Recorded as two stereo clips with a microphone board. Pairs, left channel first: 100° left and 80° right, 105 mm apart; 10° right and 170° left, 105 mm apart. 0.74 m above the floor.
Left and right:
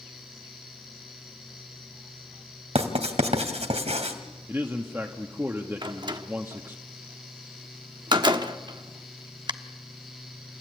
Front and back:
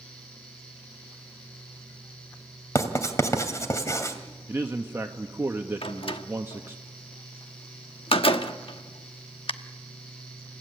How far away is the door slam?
About 1.1 m.